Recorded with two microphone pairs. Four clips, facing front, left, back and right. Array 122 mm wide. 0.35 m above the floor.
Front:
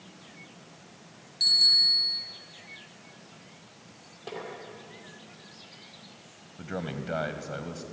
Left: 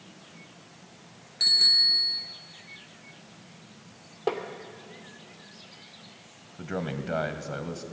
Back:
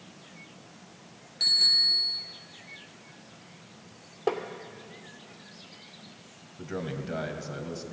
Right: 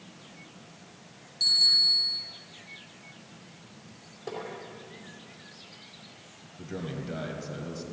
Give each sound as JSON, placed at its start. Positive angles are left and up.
{"t": 1.4, "sound": "a bicycle bell", "azimuth_deg": 100, "distance_m": 4.0}
{"t": 4.3, "sound": "tapping", "azimuth_deg": 130, "distance_m": 2.5}
{"t": 6.6, "sound": "a man speaking", "azimuth_deg": 55, "distance_m": 1.5}